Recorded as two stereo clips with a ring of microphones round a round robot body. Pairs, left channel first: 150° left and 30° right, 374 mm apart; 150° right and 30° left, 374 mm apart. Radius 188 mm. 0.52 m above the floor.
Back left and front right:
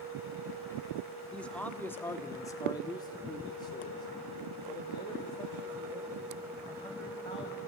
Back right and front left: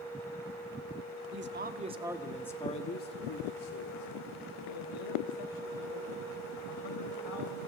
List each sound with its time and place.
1.3 s a man speaking: 65° left, 1.2 m; by 7.6 s 130° right, 3.5 m